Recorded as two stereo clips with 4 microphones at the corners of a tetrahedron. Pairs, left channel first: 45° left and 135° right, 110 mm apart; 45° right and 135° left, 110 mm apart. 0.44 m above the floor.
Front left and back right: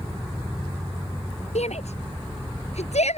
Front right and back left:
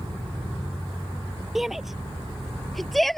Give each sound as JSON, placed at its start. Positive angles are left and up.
{"t": 1.6, "sound": "a shout", "azimuth_deg": 45}